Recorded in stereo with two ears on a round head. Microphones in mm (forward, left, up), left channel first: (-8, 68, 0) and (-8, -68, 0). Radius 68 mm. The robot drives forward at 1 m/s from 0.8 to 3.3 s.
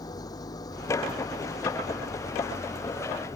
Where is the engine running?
25° left (ahead or behind).